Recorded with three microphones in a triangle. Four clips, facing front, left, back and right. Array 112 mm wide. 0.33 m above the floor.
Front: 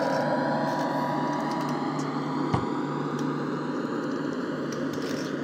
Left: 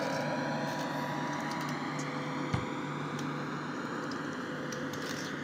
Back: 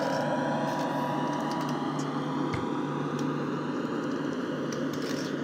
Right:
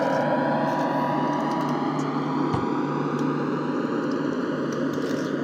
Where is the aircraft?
75° right; by 5.5 s 85° right.